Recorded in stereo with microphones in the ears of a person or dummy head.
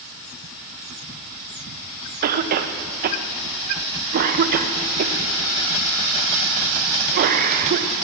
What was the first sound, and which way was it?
A cough, 50° right (ahead or behind).